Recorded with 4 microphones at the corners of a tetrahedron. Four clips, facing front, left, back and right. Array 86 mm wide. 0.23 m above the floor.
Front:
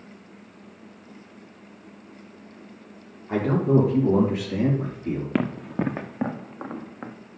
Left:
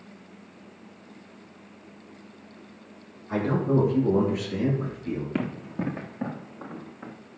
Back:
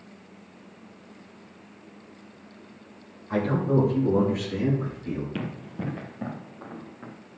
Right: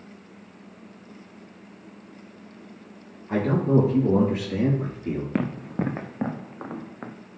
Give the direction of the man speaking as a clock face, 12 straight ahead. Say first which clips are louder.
Right 3 dB, front 3 dB; 1 o'clock.